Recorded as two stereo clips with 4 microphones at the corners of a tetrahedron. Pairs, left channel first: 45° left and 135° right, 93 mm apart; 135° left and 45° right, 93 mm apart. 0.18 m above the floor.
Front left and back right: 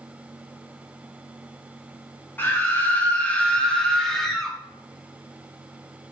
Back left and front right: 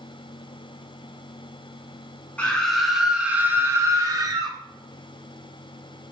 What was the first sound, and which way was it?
A scream, 80° left.